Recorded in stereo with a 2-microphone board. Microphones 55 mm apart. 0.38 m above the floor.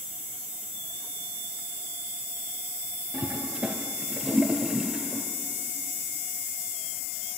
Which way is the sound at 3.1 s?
20° right (ahead or behind).